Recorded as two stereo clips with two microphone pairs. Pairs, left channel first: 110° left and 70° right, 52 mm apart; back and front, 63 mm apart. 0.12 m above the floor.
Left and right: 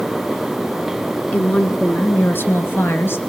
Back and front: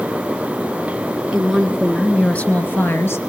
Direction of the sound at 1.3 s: 75° left.